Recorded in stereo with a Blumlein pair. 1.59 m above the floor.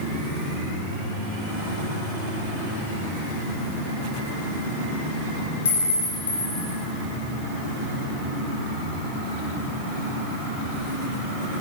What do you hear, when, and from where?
5.7 s a clink: 70° left, 4 m